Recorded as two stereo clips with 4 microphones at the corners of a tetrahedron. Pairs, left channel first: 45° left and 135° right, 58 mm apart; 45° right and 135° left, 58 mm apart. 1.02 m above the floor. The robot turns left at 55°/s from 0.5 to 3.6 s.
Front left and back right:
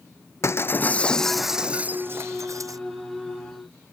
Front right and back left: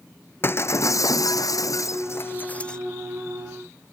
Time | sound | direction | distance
0.4 | breaking glass | 5° left | ?